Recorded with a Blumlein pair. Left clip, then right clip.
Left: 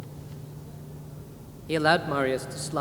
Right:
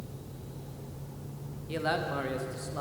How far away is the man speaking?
About 0.7 m.